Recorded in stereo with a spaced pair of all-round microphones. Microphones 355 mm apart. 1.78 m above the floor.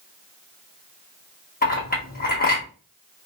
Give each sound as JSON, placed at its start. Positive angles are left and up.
{"t": 1.6, "sound": "a clink", "side_deg": 25, "distance_m": 1.3}